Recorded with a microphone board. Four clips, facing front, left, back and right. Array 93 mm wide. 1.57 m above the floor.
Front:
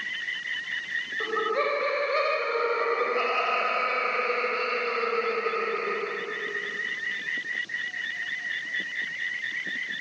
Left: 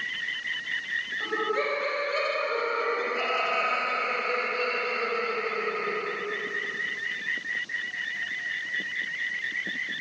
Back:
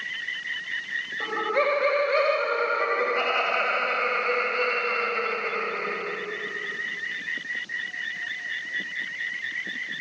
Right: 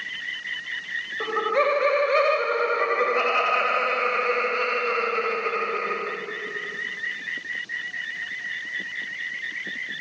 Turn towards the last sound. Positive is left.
turn(degrees=-90)